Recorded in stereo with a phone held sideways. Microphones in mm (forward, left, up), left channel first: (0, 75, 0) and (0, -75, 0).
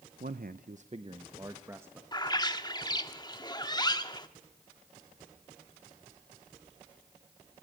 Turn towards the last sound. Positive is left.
turn(degrees=25)  # may be behind; listen again after turning